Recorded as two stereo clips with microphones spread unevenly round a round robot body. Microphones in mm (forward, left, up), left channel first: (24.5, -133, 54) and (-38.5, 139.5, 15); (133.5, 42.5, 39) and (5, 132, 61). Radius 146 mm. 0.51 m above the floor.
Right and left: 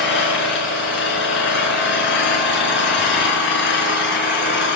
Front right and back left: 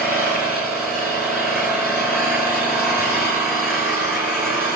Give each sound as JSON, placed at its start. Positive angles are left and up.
{"t": 0.0, "sound": "an engine running", "azimuth_deg": -130, "distance_m": 5.5}